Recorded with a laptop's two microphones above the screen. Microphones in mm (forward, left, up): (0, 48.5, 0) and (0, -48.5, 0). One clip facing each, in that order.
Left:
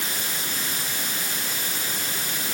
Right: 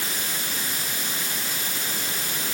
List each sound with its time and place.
Only background noise.